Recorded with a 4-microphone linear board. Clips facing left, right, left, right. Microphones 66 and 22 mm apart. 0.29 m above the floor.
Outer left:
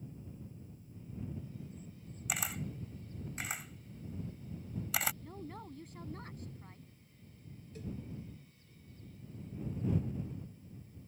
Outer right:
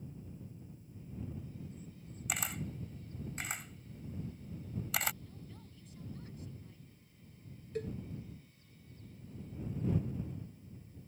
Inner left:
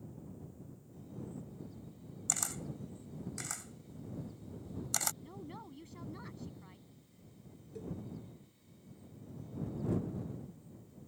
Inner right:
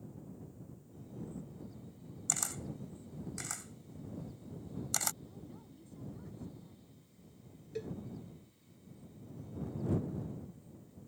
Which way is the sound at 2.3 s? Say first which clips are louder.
Even, even; centre (ahead or behind).